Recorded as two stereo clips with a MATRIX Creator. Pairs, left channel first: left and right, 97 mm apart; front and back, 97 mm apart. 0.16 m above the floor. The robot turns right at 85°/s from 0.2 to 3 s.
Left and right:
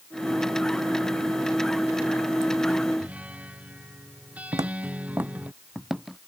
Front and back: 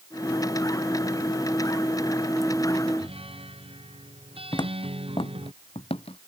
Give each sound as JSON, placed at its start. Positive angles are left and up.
{"t": 3.0, "sound": "a guitar", "azimuth_deg": -170}
{"t": 4.5, "sound": "footsteps", "azimuth_deg": -40}